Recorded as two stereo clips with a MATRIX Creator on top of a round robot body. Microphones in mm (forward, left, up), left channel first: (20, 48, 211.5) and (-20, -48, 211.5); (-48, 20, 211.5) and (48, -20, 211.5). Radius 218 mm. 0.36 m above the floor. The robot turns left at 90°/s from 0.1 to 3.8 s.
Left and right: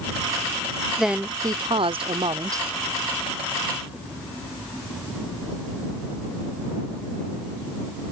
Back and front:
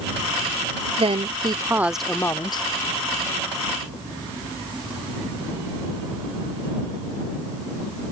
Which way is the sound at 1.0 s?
20° right.